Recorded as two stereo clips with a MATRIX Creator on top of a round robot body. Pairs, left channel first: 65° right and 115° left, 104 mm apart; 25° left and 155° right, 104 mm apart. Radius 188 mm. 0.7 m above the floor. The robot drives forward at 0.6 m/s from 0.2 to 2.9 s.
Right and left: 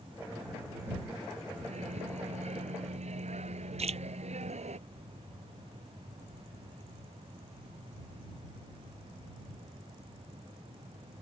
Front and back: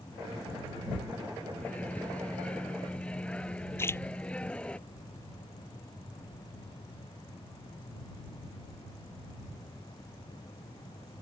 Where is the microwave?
100° left; by 4.8 s 105° left.